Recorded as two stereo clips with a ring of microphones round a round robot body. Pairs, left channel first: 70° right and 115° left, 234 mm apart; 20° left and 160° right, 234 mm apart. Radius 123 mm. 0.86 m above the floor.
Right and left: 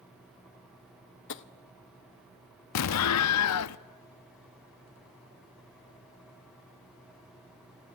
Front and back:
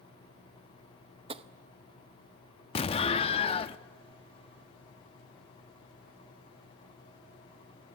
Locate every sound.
1.3 s tapping: 95° right, 0.8 m
2.8 s an explosion: 45° right, 0.5 m